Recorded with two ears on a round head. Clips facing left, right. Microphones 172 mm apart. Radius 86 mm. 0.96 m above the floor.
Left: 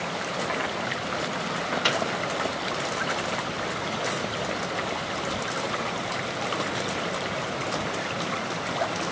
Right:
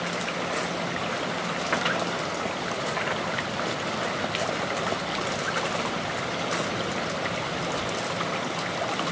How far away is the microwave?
About 0.7 m.